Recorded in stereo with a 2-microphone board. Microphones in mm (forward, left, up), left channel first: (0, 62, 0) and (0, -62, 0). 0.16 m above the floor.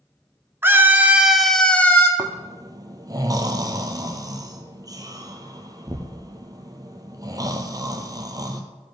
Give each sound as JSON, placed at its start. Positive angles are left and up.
{"t": 0.6, "sound": "a scream", "side_deg": -20, "distance_m": 1.5}
{"t": 2.2, "sound": "snoring", "side_deg": -30, "distance_m": 1.5}